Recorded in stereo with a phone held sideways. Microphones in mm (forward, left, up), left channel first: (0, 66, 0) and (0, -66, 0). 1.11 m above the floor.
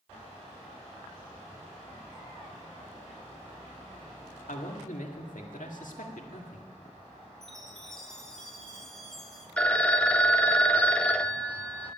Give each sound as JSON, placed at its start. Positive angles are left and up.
{"t": 4.5, "sound": "a man speaking", "side_deg": 90, "distance_m": 1.9}
{"t": 7.4, "sound": "a chime", "side_deg": 5, "distance_m": 1.7}
{"t": 9.6, "sound": "a phone ringing", "side_deg": 10, "distance_m": 0.6}